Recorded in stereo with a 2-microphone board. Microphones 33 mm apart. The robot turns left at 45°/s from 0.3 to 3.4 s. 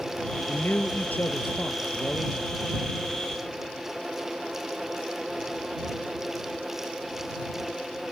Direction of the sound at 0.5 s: 110° left.